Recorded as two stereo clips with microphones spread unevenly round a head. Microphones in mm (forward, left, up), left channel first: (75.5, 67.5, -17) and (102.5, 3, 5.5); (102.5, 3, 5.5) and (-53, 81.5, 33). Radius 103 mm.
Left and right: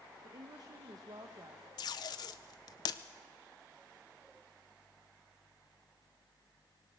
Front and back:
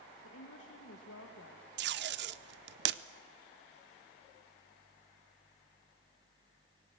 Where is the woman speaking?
35° right, 1.4 m.